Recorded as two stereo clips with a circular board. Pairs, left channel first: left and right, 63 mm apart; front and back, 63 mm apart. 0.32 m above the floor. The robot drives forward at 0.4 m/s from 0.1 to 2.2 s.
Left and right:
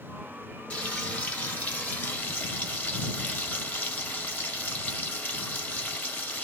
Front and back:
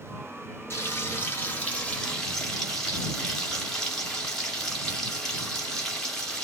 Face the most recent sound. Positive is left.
turn(degrees=75)